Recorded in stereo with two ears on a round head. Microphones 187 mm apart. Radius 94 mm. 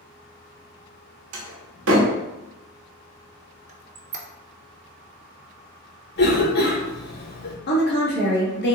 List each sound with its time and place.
1.3 s a door slam: 75° right (ahead or behind), 1.2 m
3.7 s a squeak: 35° right (ahead or behind), 0.6 m
6.2 s a cough: 50° left (ahead or behind), 1.3 m
7.7 s a woman speaking: 50° left (ahead or behind), 1.2 m